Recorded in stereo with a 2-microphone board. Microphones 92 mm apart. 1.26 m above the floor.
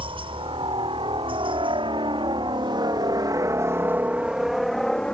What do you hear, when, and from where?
0.0 s a helicopter: 70° right (ahead or behind); by 5.1 s 10° left (ahead or behind)